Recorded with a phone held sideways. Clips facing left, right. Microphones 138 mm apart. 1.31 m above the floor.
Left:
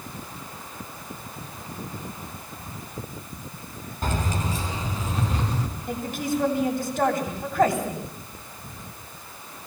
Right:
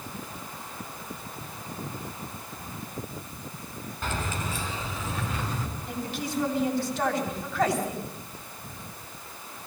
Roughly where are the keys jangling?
Left.